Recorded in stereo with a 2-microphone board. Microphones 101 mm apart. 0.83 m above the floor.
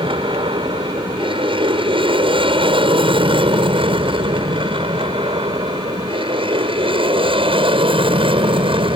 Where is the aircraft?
65° right (ahead or behind); by 9.0 s 70° right (ahead or behind).